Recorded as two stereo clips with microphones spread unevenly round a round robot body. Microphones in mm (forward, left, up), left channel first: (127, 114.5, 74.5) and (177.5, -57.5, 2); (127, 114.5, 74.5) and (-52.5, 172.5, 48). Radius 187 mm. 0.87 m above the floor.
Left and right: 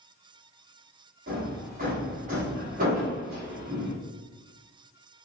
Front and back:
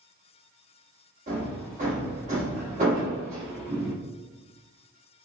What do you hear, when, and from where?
1.3 s hammering: 135° right, 0.7 m